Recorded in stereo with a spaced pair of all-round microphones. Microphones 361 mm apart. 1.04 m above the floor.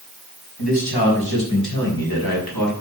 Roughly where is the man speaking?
Left.